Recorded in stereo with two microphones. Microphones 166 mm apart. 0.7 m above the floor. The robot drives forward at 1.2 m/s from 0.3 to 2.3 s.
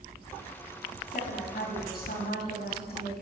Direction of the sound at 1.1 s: 60° left (ahead or behind).